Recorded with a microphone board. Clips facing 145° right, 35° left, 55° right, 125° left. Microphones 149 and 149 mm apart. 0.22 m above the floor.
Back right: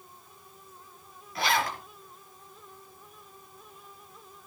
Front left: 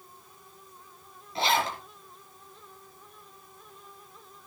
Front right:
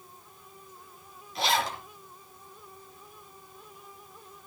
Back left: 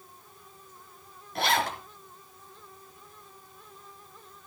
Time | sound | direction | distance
1.4 | a zipper | 100° left | 4 m